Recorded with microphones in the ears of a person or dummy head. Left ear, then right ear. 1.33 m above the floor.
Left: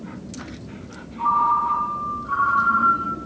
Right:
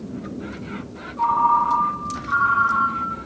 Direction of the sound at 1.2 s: 70° right (ahead or behind).